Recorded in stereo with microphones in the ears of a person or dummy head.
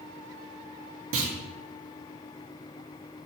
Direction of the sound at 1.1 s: 70° right (ahead or behind).